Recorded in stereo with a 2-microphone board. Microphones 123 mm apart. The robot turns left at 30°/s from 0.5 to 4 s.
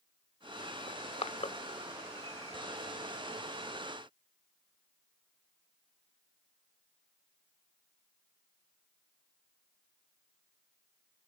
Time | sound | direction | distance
0.9 | crushing | 45° left (ahead or behind) | 0.6 m